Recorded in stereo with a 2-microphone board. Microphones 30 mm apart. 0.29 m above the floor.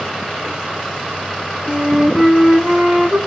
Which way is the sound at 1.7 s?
35° right (ahead or behind).